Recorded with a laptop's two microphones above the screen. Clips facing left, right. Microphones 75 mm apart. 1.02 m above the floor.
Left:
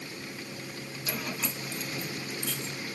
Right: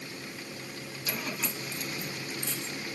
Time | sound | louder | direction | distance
1.1 | keys jangling | even | 5° left (ahead or behind) | 3 m